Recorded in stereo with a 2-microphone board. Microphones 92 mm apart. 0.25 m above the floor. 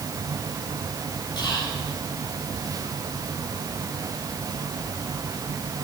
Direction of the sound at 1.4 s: 50° left (ahead or behind).